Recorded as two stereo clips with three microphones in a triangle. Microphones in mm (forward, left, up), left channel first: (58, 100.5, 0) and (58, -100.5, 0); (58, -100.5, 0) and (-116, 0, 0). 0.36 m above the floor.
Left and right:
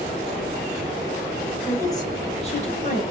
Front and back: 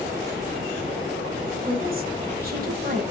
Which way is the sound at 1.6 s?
165° left.